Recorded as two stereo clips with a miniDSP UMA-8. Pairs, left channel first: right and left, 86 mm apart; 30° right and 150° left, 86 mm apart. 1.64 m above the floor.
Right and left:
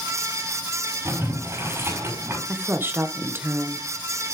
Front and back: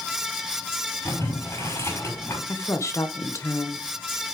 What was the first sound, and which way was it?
Boiling, 30° left.